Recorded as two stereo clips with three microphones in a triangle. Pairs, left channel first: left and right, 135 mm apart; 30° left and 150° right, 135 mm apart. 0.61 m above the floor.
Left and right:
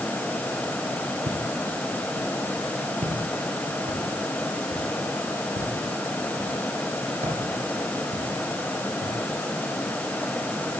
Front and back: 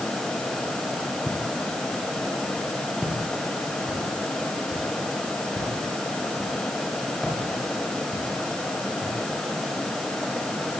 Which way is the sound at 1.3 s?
60° right.